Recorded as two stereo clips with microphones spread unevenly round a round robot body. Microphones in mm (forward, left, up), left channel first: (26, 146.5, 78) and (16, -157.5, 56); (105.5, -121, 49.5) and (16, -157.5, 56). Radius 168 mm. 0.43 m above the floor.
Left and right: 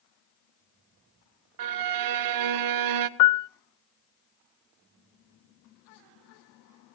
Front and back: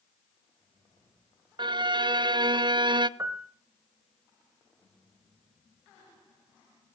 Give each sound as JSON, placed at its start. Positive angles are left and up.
{"t": 1.6, "sound": "a violin", "azimuth_deg": -110, "distance_m": 0.7}
{"t": 3.2, "sound": "a piano", "azimuth_deg": 120, "distance_m": 0.5}